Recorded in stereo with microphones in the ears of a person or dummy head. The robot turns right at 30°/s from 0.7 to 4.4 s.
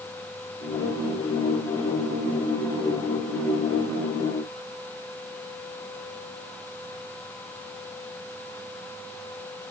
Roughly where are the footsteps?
I don't hear footsteps.